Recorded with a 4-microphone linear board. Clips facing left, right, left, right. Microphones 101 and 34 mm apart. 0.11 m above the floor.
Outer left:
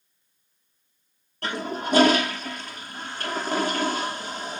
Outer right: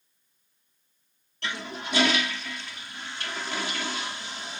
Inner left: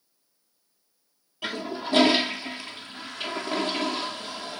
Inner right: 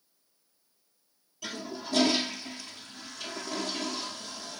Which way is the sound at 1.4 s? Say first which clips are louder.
Outer left 6 dB, inner left 7 dB; 45° left (ahead or behind).